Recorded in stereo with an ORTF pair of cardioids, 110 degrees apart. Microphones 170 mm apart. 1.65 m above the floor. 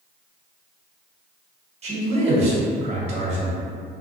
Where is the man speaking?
40° right, 1.0 m.